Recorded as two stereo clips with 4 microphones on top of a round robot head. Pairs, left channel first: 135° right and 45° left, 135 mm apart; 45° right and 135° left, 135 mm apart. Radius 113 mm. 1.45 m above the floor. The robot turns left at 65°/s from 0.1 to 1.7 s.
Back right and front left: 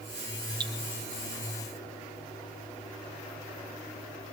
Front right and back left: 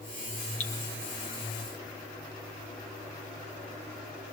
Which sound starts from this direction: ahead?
Dripping, at 0.6 s.